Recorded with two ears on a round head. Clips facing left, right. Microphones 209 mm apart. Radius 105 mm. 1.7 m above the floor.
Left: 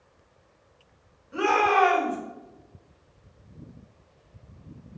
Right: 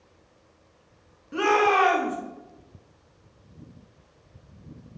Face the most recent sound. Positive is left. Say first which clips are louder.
# right 2 dB
turn(degrees=-50)  # may be behind; listen again after turning